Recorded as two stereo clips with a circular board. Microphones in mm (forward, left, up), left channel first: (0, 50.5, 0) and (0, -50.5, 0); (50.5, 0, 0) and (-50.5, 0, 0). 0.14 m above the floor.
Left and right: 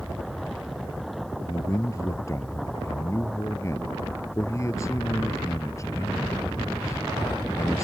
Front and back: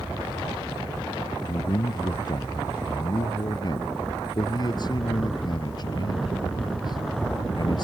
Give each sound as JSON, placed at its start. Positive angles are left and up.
{"t": 1.4, "sound": "a man speaking", "azimuth_deg": 35}